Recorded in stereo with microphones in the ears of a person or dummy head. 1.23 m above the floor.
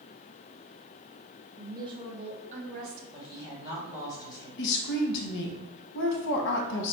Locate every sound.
1.6 s a woman speaking: 15° right (ahead or behind), 1.2 m; by 3.0 s 55° right (ahead or behind), 1.2 m
3.1 s a woman speaking: 20° left (ahead or behind), 1.6 m
4.6 s a woman speaking: 65° left (ahead or behind), 0.9 m